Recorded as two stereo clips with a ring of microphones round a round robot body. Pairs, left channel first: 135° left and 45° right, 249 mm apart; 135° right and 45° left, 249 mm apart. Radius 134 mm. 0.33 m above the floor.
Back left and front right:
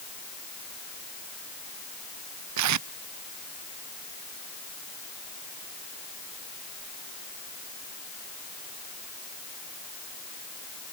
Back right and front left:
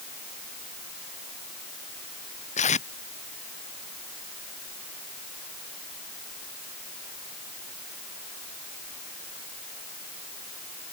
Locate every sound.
2.6 s tape being pulled: 70° right